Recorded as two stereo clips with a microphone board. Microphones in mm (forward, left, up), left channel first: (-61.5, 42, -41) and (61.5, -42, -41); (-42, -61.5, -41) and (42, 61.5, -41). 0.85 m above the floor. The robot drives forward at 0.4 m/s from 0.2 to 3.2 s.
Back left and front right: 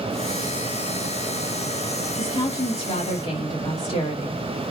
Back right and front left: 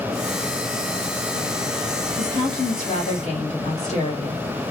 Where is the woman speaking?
165° right, 1.4 m.